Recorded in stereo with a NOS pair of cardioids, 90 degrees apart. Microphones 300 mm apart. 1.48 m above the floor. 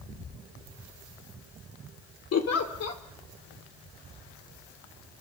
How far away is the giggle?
About 3 m.